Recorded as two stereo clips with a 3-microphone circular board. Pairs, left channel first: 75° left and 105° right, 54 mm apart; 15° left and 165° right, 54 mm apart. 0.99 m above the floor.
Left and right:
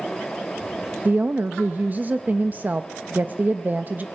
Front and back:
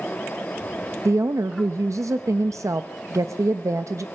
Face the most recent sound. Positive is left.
turn(degrees=-160)